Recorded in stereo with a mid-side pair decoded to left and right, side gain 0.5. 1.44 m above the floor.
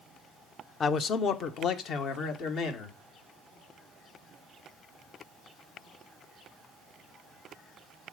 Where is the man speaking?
45° left, 0.7 m; by 3.0 s 75° left, 2.5 m.